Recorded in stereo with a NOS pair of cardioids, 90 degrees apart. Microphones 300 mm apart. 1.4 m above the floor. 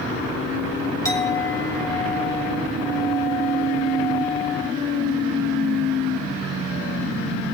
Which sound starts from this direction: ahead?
A clink, at 1.1 s.